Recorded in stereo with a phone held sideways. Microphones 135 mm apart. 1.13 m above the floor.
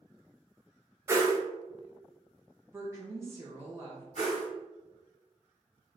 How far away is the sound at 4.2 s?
About 1.8 m.